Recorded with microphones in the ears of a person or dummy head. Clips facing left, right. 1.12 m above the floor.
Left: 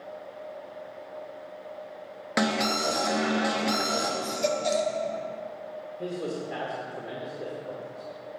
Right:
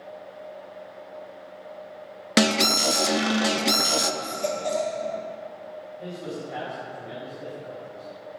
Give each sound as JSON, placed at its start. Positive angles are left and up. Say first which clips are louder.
{"t": 2.4, "sound": "an alarm", "louder": "right 4 dB", "side_deg": -35, "distance_m": 0.7}
{"t": 4.2, "sound": "a baby crying", "louder": "left 1 dB", "side_deg": 30, "distance_m": 0.8}
{"t": 6.0, "sound": "a man speaking", "louder": "left 3 dB", "side_deg": 70, "distance_m": 2.0}